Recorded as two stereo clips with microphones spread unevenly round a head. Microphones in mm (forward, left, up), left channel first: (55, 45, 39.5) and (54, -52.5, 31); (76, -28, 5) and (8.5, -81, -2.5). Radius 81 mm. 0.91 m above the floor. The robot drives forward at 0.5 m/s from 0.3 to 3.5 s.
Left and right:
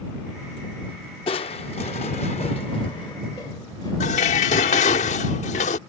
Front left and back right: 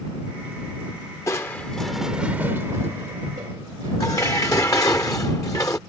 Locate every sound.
1.3 s crushing: 90° left; by 4.0 s 155° left
4.0 s dishes clattering: 110° left